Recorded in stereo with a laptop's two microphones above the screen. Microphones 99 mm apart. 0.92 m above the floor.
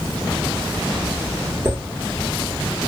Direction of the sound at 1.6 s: 25° right (ahead or behind).